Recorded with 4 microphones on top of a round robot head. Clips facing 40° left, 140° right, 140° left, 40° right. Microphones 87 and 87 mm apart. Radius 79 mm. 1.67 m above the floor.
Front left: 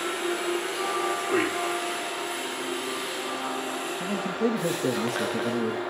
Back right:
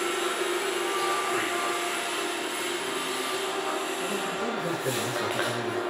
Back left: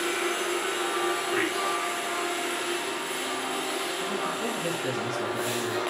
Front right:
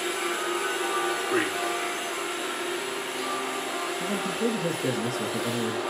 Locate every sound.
1.2 s a man speaking: 5° left, 4.5 m
4.0 s a man speaking: 10° left, 2.5 m